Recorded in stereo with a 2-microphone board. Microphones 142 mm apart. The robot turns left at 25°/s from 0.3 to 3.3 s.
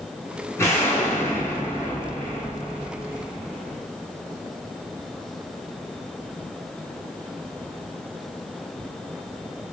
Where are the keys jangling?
No keys jangling in this recording.